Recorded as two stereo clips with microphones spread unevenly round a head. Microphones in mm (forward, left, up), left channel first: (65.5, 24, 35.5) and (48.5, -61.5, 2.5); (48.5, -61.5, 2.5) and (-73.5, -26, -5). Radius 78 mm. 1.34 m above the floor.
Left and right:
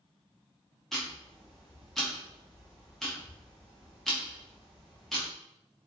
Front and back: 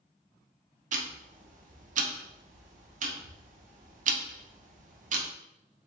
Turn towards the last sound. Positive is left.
turn(degrees=175)